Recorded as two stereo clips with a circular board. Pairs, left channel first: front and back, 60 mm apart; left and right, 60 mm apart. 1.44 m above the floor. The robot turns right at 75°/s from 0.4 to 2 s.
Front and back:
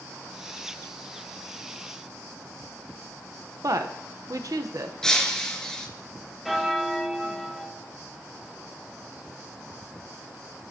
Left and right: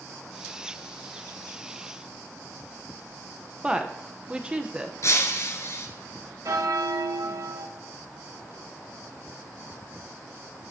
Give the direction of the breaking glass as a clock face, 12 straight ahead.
9 o'clock.